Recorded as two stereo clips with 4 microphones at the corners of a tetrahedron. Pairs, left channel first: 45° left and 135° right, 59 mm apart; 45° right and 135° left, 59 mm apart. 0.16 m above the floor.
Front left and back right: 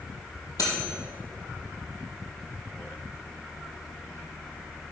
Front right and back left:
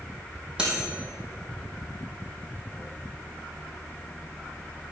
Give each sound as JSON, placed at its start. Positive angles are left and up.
{"t": 0.6, "sound": "cutlery clinking", "azimuth_deg": 65, "distance_m": 3.0}